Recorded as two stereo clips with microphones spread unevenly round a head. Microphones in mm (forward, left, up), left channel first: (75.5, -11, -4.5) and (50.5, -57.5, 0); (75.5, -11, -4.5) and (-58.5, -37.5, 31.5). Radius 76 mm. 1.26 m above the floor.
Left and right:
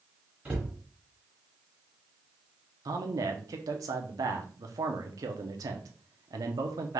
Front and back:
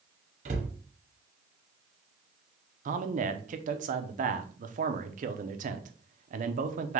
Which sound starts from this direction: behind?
A cupboard door, at 0.5 s.